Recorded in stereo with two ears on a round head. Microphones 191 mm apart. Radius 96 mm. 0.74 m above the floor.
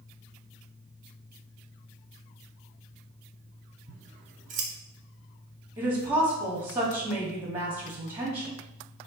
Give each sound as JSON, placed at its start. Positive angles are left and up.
{"t": 3.9, "sound": "scissors", "side_deg": -35, "distance_m": 0.8}
{"t": 5.8, "sound": "a woman speaking", "side_deg": -10, "distance_m": 1.3}